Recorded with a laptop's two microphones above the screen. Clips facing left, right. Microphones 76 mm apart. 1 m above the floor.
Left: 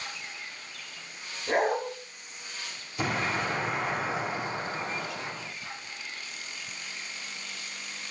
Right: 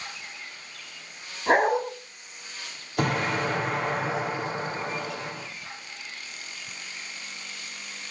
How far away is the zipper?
No zipper in this recording.